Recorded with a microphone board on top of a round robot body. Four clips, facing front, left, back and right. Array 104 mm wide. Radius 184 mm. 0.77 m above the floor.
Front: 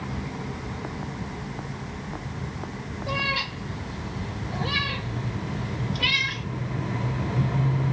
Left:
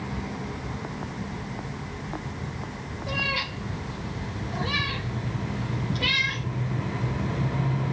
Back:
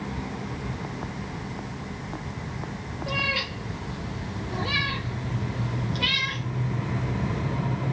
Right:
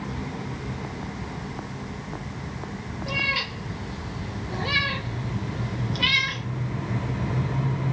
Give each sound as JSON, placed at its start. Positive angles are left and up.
{"t": 3.1, "sound": "a cat meowing", "azimuth_deg": -125, "distance_m": 2.5}